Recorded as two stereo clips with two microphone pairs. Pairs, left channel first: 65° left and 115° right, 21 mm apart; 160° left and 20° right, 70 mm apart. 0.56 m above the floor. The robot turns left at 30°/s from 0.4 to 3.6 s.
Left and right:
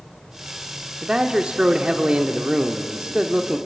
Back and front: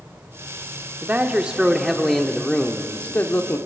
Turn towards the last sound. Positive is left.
turn(degrees=-155)